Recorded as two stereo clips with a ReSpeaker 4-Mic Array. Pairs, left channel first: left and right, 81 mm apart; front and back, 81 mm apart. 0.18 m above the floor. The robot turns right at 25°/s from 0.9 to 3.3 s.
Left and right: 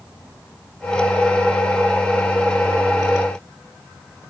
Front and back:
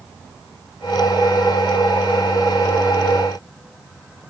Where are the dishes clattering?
I don't hear dishes clattering.